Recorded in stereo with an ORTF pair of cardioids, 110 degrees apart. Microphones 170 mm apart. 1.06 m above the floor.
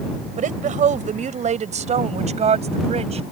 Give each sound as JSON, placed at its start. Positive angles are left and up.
{"t": 0.4, "sound": "a woman speaking", "azimuth_deg": -50}